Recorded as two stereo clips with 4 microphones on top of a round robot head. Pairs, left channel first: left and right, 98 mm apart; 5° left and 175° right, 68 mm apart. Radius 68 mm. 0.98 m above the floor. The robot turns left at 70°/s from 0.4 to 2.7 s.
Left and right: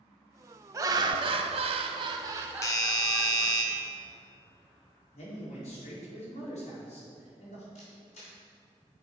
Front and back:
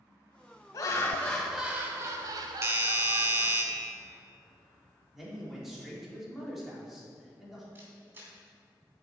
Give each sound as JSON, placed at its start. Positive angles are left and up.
{"t": 0.7, "sound": "laughter", "azimuth_deg": -35, "distance_m": 0.8}
{"t": 2.6, "sound": "a doorbell", "azimuth_deg": 145, "distance_m": 1.1}
{"t": 5.1, "sound": "a man speaking", "azimuth_deg": 100, "distance_m": 2.5}
{"t": 7.8, "sound": "a camera shutter", "azimuth_deg": 125, "distance_m": 2.0}